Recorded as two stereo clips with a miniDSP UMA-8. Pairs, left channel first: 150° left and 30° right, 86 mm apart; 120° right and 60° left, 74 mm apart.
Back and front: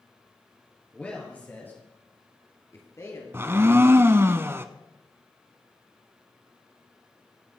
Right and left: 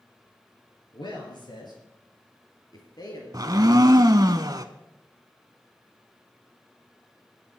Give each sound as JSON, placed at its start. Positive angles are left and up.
{"t": 0.9, "sound": "a man speaking", "azimuth_deg": -135, "distance_m": 4.5}
{"t": 3.3, "sound": "a blender", "azimuth_deg": 30, "distance_m": 0.7}